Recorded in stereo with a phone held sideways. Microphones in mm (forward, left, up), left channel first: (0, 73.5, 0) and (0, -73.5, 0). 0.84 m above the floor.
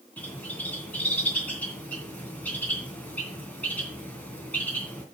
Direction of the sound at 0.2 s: 10° left (ahead or behind).